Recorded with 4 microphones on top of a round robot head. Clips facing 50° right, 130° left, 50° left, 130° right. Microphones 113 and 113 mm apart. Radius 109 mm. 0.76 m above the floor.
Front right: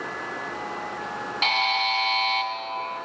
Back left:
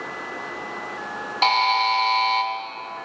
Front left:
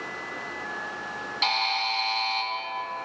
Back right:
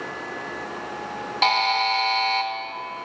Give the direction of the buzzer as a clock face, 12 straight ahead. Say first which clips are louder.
Back left 7 dB, back right 7 dB; 6 o'clock.